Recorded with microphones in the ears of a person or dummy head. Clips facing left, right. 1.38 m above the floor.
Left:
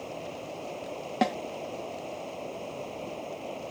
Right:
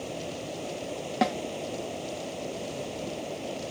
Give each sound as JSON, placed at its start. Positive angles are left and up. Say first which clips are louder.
{"t": 0.0, "sound": "running water", "louder": "right 3 dB", "side_deg": -20}
{"t": 1.2, "sound": "a snare drum", "louder": "even", "side_deg": 0}